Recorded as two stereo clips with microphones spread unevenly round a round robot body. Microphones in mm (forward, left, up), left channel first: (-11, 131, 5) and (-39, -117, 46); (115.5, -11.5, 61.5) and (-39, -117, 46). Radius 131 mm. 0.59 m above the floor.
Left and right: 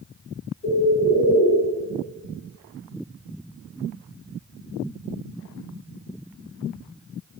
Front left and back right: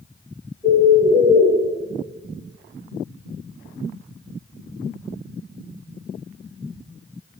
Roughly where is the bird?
Behind left.